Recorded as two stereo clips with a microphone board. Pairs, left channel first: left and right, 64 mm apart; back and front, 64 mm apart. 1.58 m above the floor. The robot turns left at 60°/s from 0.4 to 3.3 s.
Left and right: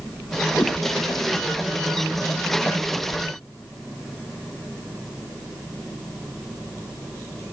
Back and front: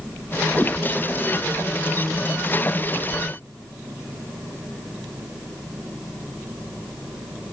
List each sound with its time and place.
0.6 s a whoosh: 130° left, 0.6 m; by 0.8 s 120° left, 0.6 m